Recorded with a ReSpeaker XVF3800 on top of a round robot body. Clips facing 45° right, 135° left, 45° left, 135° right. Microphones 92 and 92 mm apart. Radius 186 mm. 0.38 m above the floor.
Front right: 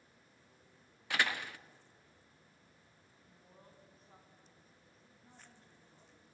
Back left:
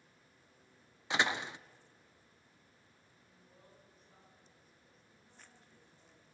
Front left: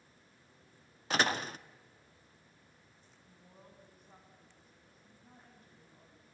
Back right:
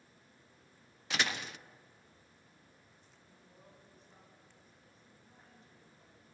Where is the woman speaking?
5° left, 5.5 m.